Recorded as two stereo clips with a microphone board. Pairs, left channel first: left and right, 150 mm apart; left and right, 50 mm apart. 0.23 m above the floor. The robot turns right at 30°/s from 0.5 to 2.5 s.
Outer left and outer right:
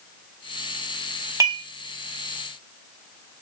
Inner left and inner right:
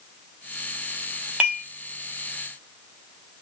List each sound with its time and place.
1.4 s dishes clattering: 20° right (ahead or behind), 0.9 m; by 1.6 s 15° right (ahead or behind), 0.9 m